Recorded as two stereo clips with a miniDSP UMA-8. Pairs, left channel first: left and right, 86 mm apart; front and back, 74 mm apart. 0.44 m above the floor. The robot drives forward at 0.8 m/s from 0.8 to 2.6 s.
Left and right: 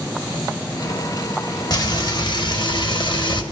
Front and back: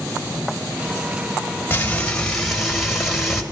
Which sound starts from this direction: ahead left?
Frying, at 1.7 s.